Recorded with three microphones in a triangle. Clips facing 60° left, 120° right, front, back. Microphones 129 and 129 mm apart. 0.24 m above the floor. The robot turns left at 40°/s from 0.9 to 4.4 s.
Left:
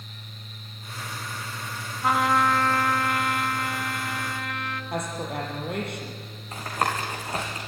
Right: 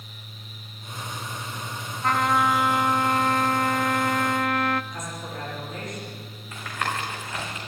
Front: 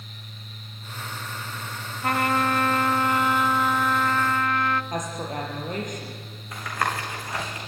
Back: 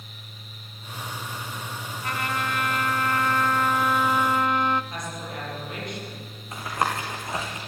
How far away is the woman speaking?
About 6 m.